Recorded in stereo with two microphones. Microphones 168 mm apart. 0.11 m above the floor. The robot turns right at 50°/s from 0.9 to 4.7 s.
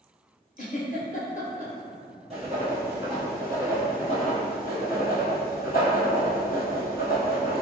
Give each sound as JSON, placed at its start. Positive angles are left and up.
{"t": 0.6, "sound": "a giggle", "side_deg": 55, "distance_m": 0.8}
{"t": 2.3, "sound": "writing", "azimuth_deg": -50, "distance_m": 1.2}